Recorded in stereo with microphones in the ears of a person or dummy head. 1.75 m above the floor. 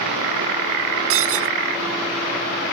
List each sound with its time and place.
1.1 s breaking glass: 80° right